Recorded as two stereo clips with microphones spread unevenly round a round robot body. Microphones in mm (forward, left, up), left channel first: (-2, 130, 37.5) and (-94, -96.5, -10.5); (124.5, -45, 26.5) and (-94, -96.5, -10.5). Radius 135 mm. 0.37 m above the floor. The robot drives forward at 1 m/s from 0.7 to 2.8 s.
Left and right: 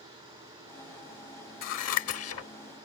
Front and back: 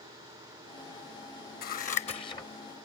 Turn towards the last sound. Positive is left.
turn(degrees=105)